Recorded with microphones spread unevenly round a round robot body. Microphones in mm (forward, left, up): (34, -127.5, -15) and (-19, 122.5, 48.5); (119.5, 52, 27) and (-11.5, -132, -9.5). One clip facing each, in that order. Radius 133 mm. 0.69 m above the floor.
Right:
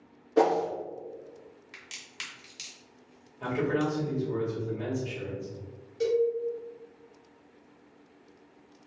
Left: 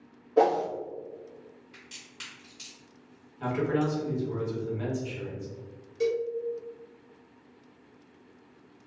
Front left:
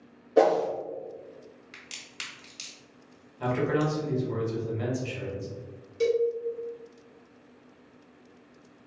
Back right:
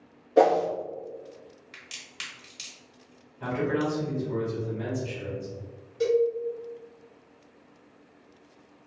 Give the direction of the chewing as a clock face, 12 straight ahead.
I don't hear chewing.